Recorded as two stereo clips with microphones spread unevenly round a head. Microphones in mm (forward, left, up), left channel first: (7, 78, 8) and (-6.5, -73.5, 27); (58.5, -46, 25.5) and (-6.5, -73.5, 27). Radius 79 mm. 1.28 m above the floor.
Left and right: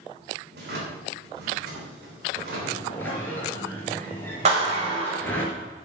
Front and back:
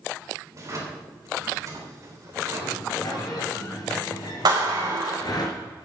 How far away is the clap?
About 4.5 m.